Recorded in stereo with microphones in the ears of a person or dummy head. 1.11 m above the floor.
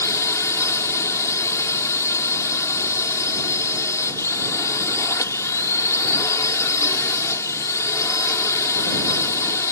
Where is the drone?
15° left (ahead or behind).